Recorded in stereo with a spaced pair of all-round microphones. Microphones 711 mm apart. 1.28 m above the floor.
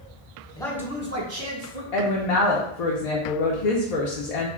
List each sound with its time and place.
0.6 s a man speaking: 5° left (ahead or behind), 0.8 m; by 1.8 s 60° right (ahead or behind), 0.8 m
1.9 s a woman speaking: 70° left (ahead or behind), 0.6 m